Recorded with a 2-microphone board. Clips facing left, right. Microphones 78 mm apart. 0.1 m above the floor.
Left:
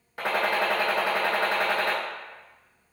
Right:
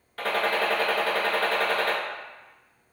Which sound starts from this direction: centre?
A gunshot, at 0.2 s.